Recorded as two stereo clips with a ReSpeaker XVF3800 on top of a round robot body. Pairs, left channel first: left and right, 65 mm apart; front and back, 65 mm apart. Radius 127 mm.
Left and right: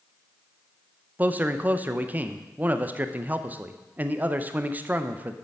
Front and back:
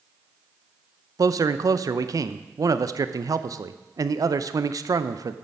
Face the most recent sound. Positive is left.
turn(degrees=-150)